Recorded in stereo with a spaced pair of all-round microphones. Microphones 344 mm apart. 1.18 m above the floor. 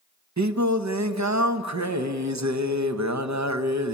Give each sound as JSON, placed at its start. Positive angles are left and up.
{"t": 0.4, "sound": "singing", "side_deg": -50, "distance_m": 1.1}